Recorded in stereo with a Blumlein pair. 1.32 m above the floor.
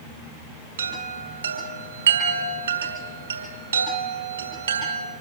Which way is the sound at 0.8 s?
70° right.